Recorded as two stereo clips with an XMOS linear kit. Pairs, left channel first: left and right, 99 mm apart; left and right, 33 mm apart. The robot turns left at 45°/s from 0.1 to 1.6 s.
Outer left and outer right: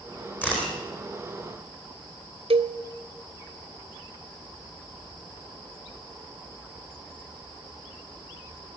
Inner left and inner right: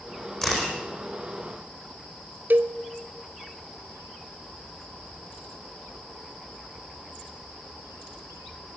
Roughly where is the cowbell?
Right.